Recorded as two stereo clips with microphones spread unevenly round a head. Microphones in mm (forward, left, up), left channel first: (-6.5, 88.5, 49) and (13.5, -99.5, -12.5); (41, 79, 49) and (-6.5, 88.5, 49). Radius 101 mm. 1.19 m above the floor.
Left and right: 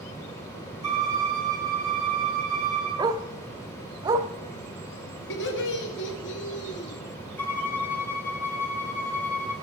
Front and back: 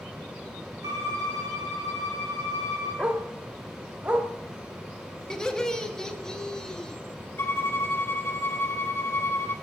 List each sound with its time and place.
0.8 s a violin: 160° right, 7.5 m
3.0 s a dog barking: 175° right, 0.7 m
5.3 s laughter: 65° left, 1.7 m
7.4 s a violin: 20° left, 1.6 m